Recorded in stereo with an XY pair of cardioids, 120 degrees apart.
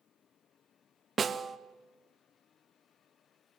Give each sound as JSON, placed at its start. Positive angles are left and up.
{"t": 1.2, "sound": "a snare drum", "azimuth_deg": -35, "distance_m": 1.0}